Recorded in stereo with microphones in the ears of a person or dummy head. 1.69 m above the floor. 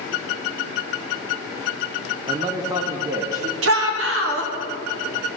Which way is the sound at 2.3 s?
25° right (ahead or behind).